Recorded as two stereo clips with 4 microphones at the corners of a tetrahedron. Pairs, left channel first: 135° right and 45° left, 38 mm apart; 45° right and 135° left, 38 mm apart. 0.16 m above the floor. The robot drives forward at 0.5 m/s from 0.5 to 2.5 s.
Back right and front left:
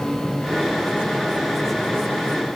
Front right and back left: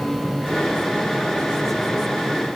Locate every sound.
Only background noise.